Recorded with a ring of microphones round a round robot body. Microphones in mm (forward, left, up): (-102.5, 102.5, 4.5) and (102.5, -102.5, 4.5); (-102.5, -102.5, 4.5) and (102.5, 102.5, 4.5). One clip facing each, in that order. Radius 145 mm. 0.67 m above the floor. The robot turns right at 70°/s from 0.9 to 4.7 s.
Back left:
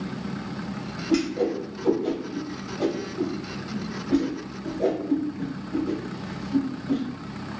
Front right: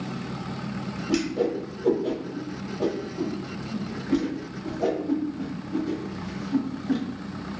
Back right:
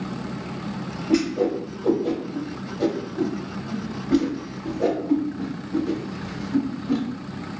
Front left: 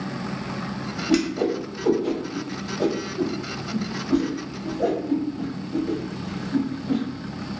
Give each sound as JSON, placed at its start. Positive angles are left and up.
{"t": 1.1, "sound": "a whoosh", "azimuth_deg": 15, "distance_m": 0.9}